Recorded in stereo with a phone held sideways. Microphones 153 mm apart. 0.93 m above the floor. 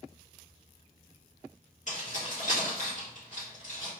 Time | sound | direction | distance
1.9 | keys jangling | 55° left (ahead or behind) | 1.6 m